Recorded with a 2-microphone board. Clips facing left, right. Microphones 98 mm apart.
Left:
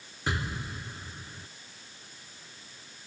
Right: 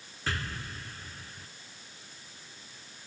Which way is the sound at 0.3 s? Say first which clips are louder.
Left 3 dB; 20° left (ahead or behind).